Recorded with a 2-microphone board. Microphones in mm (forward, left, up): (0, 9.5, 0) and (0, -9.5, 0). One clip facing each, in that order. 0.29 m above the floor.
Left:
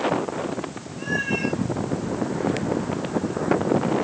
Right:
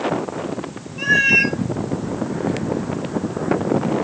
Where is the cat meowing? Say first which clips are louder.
Right 10 dB; 80° right, 1.4 m.